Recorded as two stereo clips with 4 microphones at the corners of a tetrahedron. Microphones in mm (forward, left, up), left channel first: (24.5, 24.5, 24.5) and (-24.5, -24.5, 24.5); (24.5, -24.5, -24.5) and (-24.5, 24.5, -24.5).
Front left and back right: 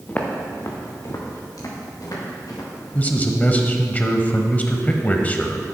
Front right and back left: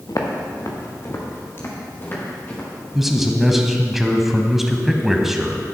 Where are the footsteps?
20° right, 1.9 m; by 2.7 s 20° left, 4.5 m.